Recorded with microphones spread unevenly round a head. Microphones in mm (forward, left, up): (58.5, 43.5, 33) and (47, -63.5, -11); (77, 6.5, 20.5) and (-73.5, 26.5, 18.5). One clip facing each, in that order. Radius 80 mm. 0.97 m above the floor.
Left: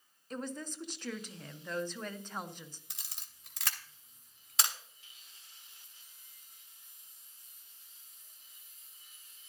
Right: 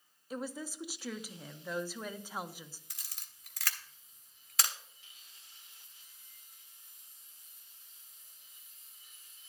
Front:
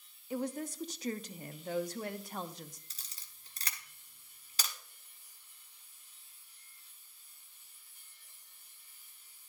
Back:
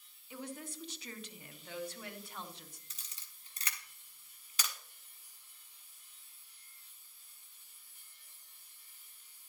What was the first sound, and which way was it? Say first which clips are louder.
A woman speaking: even, front 8 dB; 40° right.